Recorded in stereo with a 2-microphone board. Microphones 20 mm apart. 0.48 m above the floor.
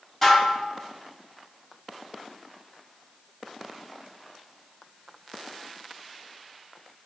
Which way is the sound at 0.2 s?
5° left (ahead or behind).